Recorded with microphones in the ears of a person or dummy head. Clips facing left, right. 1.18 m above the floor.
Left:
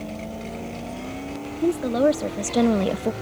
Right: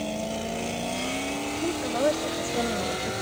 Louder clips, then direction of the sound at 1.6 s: Left 7 dB; 35° left (ahead or behind).